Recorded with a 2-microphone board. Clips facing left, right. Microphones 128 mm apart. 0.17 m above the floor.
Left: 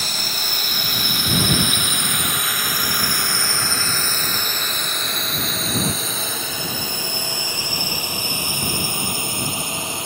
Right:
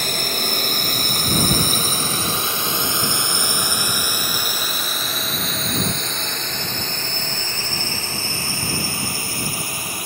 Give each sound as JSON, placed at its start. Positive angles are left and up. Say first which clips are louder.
{"t": 0.0, "sound": "a drone", "louder": "right 5 dB", "side_deg": -55}